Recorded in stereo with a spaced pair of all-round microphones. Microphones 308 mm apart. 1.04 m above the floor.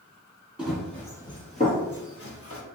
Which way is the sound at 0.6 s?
5° right (ahead or behind).